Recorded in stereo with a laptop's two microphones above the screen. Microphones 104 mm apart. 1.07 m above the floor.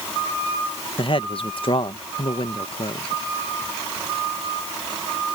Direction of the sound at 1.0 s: 55° left (ahead or behind).